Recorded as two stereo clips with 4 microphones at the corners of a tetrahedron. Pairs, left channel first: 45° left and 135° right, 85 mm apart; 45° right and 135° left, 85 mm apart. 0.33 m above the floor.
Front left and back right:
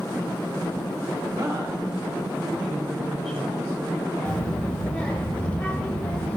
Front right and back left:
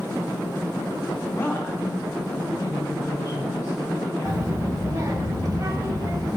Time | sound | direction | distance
1.3 | a woman speaking | 105° right | 1.7 m
4.2 | a child speaking | 115° left | 1.3 m